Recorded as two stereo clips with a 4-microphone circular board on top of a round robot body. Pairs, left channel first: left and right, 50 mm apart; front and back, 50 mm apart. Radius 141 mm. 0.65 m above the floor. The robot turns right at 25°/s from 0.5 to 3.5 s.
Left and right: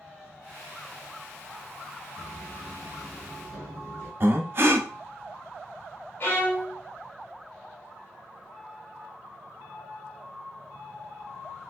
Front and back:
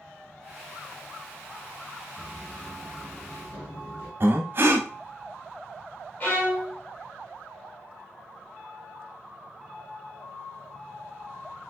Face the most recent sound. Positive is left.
turn(degrees=40)